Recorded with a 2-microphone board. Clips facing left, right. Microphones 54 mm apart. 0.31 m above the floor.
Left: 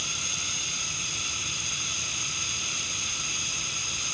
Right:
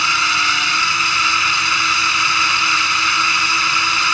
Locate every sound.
0.0 s a drone: 60° right (ahead or behind)